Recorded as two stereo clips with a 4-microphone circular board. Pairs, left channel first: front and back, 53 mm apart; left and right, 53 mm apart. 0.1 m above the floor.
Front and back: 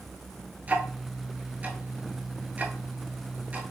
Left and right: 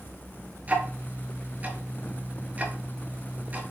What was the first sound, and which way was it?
Ticking, 135° right.